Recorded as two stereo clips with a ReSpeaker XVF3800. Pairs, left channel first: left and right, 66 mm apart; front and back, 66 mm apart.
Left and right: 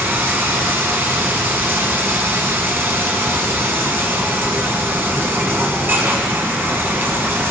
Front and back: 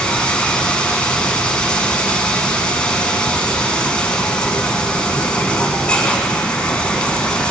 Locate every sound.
0.0 s running water: 60° right, 1.5 m